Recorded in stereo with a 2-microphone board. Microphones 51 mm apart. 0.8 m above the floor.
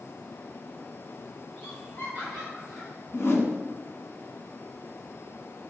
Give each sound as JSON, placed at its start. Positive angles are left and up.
{"t": 1.6, "sound": "laughter", "side_deg": 40, "distance_m": 3.0}
{"t": 3.1, "sound": "a whoosh", "side_deg": 60, "distance_m": 1.1}